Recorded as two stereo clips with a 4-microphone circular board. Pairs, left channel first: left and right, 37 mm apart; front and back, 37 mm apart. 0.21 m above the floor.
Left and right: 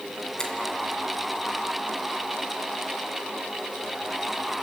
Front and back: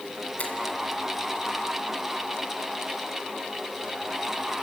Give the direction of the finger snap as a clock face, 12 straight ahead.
11 o'clock.